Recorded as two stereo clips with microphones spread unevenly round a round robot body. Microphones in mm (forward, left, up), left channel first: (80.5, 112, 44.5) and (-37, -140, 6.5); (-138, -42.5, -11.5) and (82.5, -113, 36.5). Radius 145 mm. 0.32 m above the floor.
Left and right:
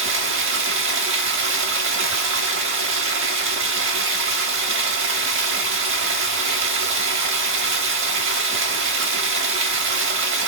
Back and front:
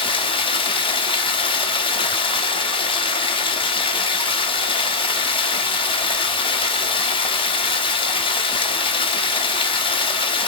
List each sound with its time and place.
0.0 s running water: 140° right, 0.9 m